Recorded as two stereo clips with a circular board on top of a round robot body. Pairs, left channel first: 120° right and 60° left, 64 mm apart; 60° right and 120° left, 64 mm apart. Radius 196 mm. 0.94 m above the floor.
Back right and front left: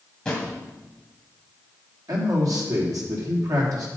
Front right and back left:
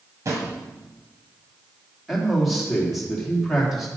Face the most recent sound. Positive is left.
turn(degrees=30)